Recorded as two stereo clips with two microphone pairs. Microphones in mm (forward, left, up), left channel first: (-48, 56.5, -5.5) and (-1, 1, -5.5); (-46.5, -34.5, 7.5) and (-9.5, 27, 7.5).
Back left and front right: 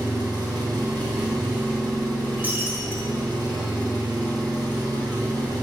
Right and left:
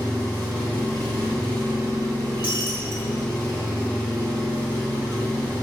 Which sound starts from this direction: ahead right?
An engine running, at 0.0 s.